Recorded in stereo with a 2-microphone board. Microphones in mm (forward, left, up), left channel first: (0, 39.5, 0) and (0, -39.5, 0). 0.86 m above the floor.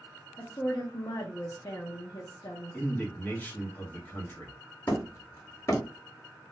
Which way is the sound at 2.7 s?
20° left (ahead or behind).